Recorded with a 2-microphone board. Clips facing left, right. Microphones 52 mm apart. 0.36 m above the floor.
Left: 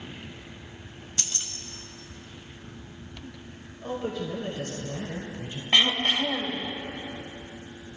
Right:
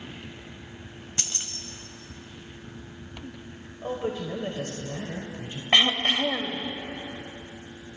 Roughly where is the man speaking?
Right.